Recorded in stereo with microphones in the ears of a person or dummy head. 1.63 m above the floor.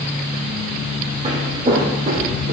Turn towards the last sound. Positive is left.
turn(degrees=-45)  # may be behind; listen again after turning